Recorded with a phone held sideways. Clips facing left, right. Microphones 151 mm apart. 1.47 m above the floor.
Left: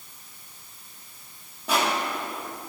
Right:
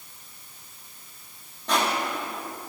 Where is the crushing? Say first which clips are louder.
Even; 10° left (ahead or behind), 2.5 m.